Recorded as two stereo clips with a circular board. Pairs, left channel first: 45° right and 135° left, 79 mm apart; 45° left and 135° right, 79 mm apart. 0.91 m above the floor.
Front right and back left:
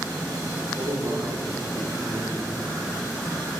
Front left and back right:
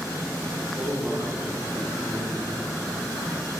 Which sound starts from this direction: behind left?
A man speaking, at 0.7 s.